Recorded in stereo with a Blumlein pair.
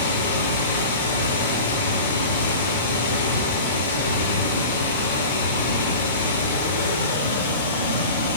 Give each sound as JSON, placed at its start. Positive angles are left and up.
{"t": 0.0, "sound": "running water", "azimuth_deg": 65, "distance_m": 2.0}